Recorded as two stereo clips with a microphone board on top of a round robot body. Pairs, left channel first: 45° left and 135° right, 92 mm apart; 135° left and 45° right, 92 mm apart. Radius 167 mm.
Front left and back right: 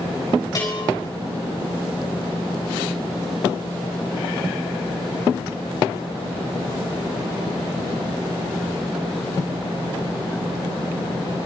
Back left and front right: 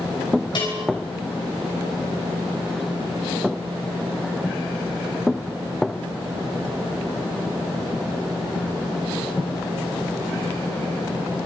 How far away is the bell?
About 8 m.